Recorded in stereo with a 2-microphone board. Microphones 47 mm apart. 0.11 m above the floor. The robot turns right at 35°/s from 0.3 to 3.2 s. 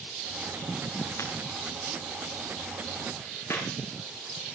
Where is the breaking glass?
70° left (ahead or behind), 5.5 m; by 1.3 s 65° left (ahead or behind), 5.5 m.